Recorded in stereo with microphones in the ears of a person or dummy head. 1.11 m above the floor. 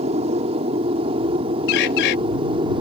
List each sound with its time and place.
0.0 s an aircraft: 35° right (ahead or behind); by 2.8 s 30° right (ahead or behind)
1.7 s a bird: 65° left (ahead or behind)